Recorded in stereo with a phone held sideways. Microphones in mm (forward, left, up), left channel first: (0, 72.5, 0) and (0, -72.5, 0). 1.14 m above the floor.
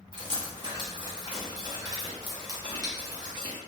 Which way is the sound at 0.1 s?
30° right (ahead or behind).